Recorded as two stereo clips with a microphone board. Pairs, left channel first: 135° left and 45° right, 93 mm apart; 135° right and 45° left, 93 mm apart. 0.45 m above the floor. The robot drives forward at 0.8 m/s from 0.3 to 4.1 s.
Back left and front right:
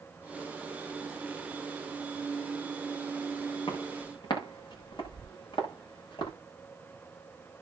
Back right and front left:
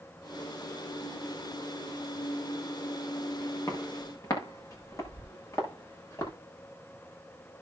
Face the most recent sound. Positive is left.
turn(degrees=170)